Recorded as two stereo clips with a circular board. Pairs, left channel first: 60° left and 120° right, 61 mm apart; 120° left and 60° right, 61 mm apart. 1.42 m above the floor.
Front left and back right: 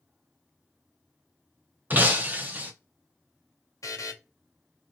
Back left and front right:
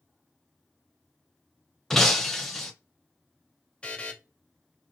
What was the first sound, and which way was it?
Breaking glass, 155° right.